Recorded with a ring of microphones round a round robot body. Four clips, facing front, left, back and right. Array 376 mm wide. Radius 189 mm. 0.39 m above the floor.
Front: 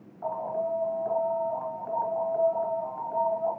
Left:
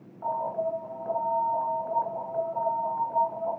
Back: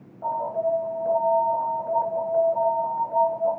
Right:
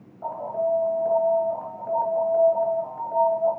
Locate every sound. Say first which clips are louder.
0.2 s an alarm: right 3 dB, back 5 dB; 140° right, 3.5 m